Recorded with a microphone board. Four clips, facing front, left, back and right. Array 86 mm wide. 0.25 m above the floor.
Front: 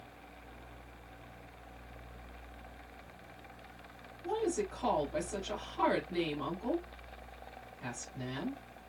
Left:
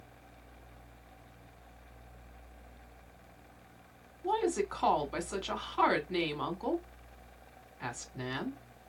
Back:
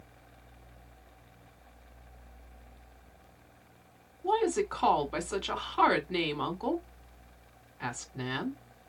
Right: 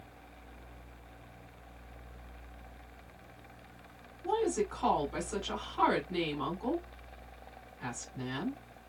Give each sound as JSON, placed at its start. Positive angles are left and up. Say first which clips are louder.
{"t": 4.2, "sound": "a woman speaking", "louder": "even, back 6 dB", "azimuth_deg": 160, "distance_m": 2.0}